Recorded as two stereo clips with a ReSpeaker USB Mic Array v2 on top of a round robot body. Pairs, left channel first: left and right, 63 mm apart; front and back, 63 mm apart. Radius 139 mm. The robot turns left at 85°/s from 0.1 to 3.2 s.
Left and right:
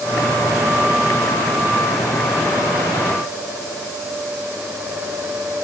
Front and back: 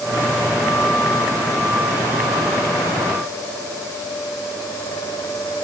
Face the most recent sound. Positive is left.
No sound to turn to.